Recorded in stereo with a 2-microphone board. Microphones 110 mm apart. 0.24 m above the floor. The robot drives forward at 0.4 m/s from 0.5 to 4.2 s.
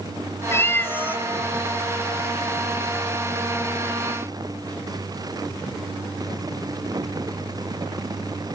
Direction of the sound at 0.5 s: 25° left (ahead or behind).